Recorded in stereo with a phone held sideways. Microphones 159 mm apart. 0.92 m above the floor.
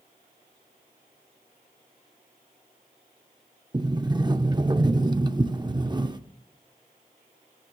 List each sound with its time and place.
3.7 s a sliding door: 25° right (ahead or behind), 0.5 m